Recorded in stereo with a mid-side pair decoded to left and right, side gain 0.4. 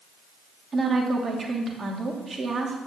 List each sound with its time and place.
0.7 s a woman speaking: 40° right, 3 m